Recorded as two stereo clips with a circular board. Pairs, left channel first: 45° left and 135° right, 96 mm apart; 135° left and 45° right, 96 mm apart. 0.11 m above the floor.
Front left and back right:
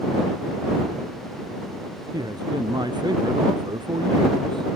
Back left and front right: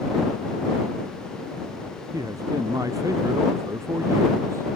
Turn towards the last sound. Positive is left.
turn(degrees=-105)